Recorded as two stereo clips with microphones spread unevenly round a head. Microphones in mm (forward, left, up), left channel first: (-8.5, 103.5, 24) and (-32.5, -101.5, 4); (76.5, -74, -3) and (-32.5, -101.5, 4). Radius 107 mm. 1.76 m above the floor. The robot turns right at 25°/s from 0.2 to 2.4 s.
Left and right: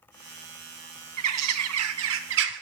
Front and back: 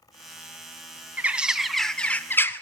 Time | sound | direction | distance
1.2 | a bird | 90° right | 0.7 m